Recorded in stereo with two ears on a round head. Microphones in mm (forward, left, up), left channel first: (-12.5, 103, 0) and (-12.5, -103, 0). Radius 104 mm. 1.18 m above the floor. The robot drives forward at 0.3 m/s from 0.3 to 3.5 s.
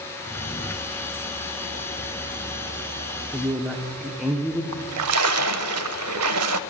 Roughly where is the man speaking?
Centre.